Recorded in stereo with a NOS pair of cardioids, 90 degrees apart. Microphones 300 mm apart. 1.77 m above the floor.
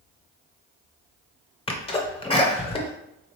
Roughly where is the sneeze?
Ahead.